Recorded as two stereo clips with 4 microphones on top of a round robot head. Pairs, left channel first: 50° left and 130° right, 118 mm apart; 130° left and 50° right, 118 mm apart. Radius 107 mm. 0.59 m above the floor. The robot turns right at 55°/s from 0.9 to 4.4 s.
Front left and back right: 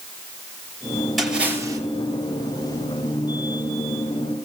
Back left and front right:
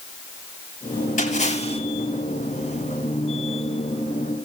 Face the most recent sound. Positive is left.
turn(degrees=-45)